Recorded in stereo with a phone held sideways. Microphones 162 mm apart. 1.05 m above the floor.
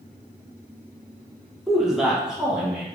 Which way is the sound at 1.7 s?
Centre (ahead or behind).